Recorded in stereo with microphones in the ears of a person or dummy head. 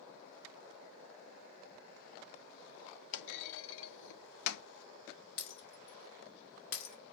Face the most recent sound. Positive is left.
turn(degrees=60)  # may be behind; listen again after turning